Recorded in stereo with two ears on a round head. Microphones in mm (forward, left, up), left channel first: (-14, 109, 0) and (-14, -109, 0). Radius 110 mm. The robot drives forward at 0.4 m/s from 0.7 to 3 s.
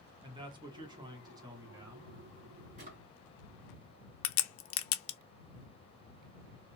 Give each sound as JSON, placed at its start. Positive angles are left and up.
{"t": 0.2, "sound": "a man speaking", "side_deg": -20, "distance_m": 1.3}
{"t": 2.8, "sound": "a drawer", "side_deg": -35, "distance_m": 2.5}
{"t": 4.2, "sound": "a crack", "side_deg": 60, "distance_m": 0.6}